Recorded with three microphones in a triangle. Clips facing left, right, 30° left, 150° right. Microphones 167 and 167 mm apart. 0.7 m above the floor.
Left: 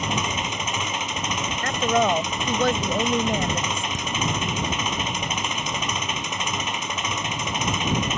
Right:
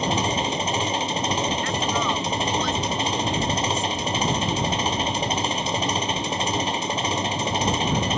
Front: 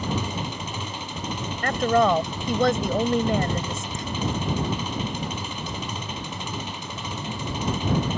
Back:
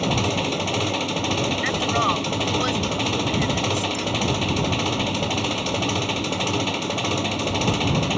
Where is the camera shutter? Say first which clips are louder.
Right 3 dB, back 6 dB; 90° left.